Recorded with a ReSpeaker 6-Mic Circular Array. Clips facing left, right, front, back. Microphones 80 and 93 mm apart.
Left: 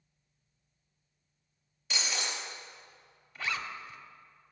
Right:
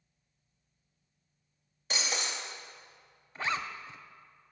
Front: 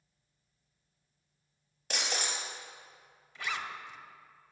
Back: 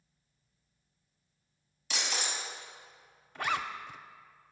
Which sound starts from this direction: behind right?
A zipper, at 3.4 s.